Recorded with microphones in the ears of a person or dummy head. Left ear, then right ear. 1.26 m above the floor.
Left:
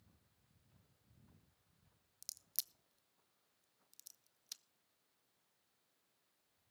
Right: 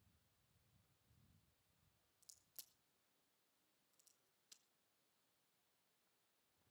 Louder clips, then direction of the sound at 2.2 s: Left 16 dB; 35° left (ahead or behind).